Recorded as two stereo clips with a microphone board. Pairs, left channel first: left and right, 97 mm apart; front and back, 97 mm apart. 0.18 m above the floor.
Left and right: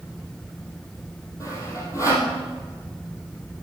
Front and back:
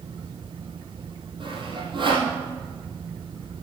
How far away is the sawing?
About 2.5 m.